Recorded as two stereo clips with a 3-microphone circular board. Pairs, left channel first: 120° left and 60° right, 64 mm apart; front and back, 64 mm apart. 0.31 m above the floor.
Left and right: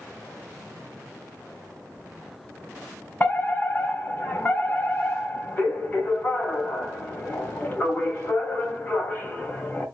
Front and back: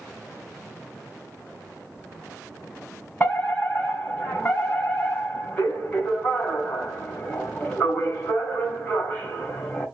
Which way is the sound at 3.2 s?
65° left.